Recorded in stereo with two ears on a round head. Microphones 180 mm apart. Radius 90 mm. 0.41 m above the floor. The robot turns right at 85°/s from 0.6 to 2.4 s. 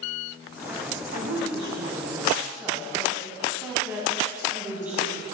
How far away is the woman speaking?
About 2.5 m.